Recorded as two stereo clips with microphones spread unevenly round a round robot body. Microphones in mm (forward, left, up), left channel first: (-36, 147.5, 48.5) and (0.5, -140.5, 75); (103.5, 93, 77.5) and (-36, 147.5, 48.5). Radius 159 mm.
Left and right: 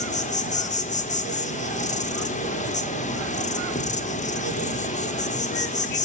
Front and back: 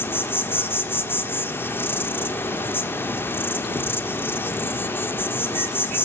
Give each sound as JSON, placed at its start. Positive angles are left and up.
{"t": 0.0, "sound": "an insect", "azimuth_deg": 65, "distance_m": 1.8}